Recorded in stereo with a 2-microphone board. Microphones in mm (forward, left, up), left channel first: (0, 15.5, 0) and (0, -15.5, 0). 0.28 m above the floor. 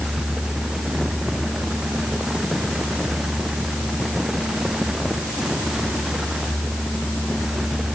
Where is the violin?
I don't hear a violin.